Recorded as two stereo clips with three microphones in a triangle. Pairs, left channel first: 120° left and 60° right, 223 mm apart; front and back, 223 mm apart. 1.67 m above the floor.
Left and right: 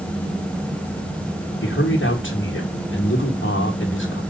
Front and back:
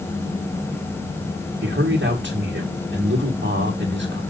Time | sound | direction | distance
1.6 | a man speaking | 150° left | 1.8 m